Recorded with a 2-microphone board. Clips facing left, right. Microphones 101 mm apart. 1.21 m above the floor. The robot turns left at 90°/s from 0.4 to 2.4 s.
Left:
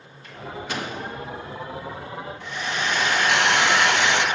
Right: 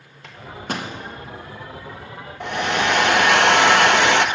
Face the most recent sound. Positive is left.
turn(degrees=-65)  # may be behind; listen again after turning